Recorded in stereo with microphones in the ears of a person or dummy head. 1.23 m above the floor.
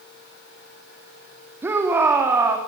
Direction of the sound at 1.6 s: 10° right (ahead or behind).